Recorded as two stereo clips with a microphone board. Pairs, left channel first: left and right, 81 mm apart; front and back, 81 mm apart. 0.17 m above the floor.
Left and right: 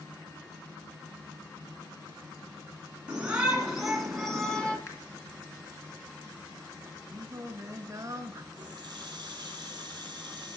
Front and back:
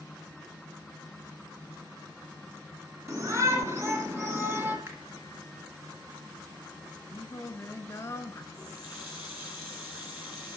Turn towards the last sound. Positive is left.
turn(degrees=-115)